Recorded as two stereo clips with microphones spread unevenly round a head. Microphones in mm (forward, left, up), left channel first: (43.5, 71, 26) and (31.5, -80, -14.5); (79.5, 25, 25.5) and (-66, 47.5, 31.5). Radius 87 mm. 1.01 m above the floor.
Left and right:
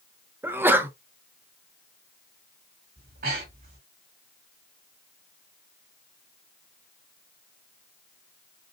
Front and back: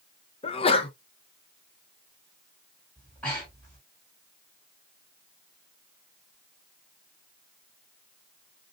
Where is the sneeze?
40° right, 0.8 m.